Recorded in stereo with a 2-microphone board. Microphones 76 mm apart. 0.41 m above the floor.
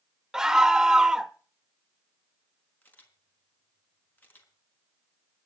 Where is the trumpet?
No trumpet in this recording.